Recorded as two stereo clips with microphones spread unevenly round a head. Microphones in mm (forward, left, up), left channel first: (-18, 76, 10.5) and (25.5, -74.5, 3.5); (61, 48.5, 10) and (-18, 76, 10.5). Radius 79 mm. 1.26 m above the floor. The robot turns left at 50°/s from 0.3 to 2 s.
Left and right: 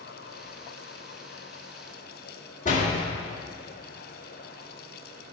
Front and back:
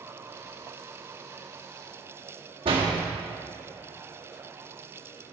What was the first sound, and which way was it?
A door slam, 155° left.